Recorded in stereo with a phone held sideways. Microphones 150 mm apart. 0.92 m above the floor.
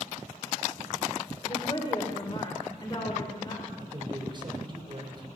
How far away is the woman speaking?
About 3 m.